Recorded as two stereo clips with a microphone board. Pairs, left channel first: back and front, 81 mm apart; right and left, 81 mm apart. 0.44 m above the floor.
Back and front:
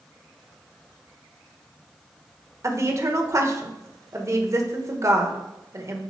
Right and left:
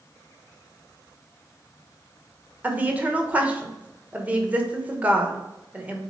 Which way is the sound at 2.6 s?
25° left.